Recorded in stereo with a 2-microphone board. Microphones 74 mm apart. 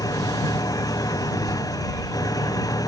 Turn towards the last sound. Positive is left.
turn(degrees=55)  # may be behind; listen again after turning